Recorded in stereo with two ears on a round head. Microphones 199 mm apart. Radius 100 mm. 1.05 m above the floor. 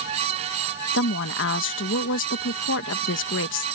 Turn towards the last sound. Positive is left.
turn(degrees=60)  # may be behind; listen again after turning